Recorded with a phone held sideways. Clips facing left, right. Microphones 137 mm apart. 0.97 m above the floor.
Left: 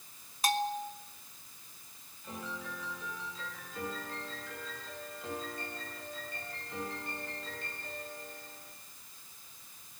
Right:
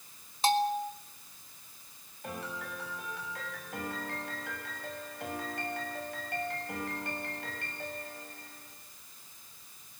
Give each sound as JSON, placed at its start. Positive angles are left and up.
{"t": 0.4, "sound": "a bell", "side_deg": -25, "distance_m": 1.4}
{"t": 2.2, "sound": "a piano", "side_deg": -70, "distance_m": 6.5}